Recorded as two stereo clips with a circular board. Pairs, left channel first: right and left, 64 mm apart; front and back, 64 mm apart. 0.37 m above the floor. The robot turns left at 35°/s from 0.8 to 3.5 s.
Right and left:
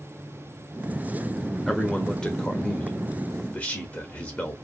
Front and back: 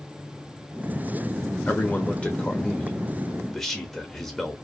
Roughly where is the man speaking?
Ahead.